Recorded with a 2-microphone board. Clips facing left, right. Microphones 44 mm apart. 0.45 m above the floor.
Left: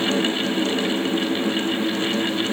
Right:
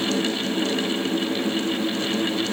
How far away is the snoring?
No snoring in this recording.